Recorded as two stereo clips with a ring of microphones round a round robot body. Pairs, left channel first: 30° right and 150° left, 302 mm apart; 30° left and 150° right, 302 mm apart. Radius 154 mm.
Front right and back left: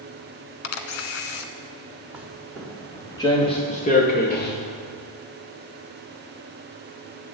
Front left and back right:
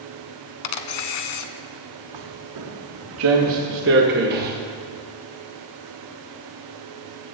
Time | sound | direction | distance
0.6 | a camera shutter | 20° left | 0.9 m
2.1 | footsteps | 125° right | 2.5 m